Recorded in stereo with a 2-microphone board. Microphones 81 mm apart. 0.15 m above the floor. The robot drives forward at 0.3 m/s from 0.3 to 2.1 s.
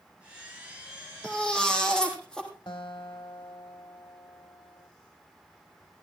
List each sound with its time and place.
1.2 s a baby crying: 10° left (ahead or behind), 3.5 m
2.7 s a guitar: 75° left (ahead or behind), 2.0 m